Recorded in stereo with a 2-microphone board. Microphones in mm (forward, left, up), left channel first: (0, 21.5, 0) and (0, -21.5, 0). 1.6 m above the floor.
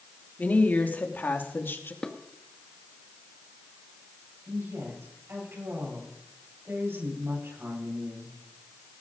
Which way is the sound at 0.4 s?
40° left (ahead or behind).